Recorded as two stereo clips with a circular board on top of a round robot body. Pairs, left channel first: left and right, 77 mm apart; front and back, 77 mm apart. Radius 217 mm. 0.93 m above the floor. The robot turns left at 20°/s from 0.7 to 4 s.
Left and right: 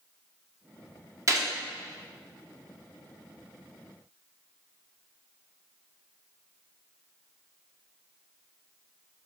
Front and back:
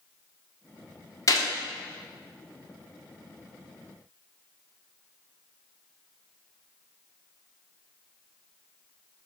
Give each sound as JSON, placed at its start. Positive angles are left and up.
{"t": 1.3, "sound": "a gunshot", "azimuth_deg": -45, "distance_m": 1.9}